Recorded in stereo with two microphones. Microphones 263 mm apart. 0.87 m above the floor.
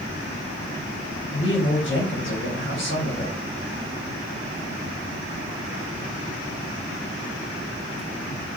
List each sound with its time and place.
1.3 s a woman speaking: 50° left (ahead or behind), 1.1 m